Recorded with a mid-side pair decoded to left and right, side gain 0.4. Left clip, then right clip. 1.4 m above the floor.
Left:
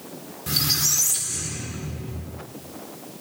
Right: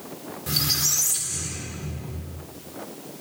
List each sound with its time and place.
0.5 s a squeak: 15° left, 1.7 m